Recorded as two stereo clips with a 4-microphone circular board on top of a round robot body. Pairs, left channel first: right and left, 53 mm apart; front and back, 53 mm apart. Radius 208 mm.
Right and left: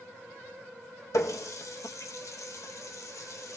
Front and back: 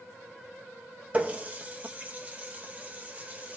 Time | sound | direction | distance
1.1 | a running tap | 115° right | 0.5 m